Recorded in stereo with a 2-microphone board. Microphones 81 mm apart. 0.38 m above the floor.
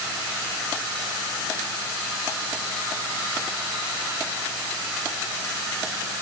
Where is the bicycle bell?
I don't hear a bicycle bell.